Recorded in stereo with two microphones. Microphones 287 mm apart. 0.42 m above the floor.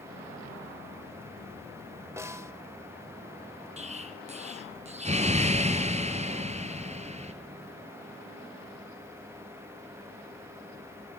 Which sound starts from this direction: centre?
A snare drum, at 2.2 s.